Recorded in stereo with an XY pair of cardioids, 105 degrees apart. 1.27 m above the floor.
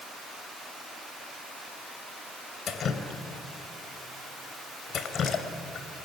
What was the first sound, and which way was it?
Dripping, 60° left.